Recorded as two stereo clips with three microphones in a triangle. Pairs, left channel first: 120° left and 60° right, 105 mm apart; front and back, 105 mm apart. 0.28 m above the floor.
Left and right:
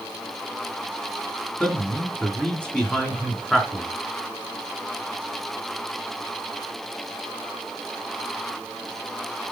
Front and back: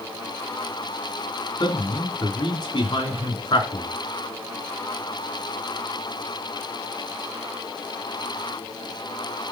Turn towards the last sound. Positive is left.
turn(degrees=40)